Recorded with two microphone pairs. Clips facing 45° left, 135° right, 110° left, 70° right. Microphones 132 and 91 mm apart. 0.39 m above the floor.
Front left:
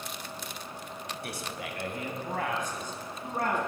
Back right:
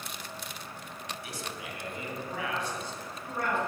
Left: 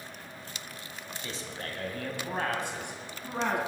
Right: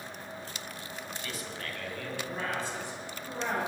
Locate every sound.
1.2 s a man speaking: 45° left, 1.8 m; by 3.6 s 95° left, 3.5 m